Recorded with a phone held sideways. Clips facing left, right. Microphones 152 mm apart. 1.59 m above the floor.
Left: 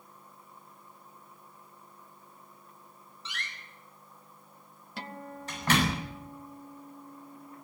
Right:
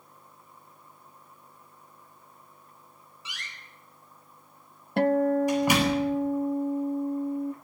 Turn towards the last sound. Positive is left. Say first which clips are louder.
# right 21 dB
turn(degrees=-60)  # may be behind; listen again after turning